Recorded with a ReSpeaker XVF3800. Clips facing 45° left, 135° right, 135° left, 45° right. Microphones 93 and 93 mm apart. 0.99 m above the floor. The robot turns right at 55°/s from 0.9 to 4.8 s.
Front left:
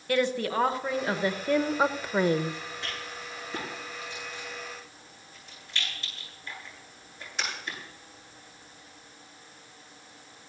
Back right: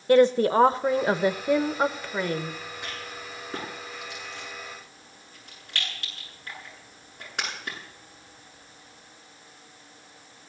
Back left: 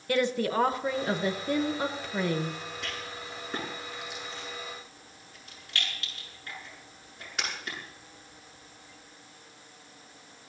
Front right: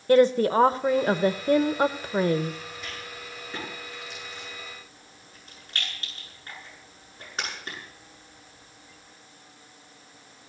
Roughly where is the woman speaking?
Right.